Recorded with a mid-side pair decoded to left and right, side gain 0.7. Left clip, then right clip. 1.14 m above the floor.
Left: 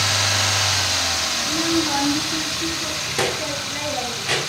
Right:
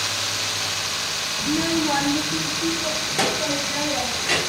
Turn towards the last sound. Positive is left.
turn(degrees=20)